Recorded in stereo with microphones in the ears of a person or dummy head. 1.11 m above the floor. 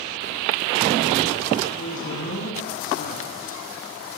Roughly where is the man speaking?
Left.